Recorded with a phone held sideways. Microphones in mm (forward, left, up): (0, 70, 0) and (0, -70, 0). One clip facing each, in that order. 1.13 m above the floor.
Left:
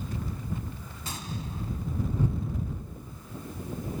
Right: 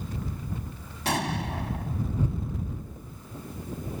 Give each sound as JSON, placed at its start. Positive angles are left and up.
{"t": 1.1, "sound": "an explosion", "side_deg": -75}